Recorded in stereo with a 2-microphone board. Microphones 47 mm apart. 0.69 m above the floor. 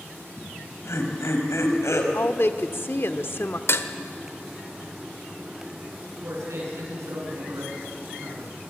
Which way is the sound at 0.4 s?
75° left (ahead or behind).